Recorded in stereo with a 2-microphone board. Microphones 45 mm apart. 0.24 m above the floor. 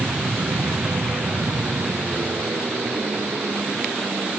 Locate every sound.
0.0 s an aircraft: 55° right (ahead or behind)